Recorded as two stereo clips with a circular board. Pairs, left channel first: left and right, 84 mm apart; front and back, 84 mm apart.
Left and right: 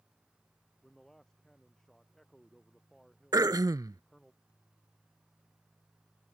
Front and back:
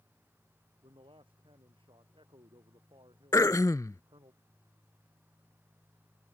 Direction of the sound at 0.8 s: 175° left.